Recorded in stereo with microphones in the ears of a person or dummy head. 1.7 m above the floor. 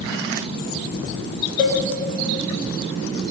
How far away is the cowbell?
About 2.5 m.